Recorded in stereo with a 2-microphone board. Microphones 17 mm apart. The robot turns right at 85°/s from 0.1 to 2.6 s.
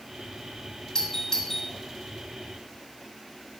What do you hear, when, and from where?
0.9 s a doorbell: 35° left (ahead or behind), 1.7 m; by 1.7 s 20° left (ahead or behind), 1.7 m